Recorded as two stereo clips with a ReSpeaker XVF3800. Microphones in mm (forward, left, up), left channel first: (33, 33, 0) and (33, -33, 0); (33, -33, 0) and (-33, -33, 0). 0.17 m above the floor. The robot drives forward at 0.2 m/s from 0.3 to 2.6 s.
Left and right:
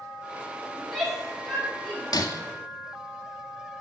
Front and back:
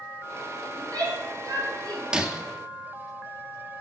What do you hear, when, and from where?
0.8 s a shout: straight behind, 4.5 m
2.1 s breaking glass: 105° left, 0.8 m